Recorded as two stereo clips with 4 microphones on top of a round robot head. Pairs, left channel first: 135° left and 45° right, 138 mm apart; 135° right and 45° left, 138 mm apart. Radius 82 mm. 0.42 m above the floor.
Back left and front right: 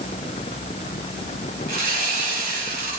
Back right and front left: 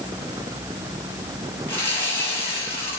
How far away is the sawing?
About 7.5 m.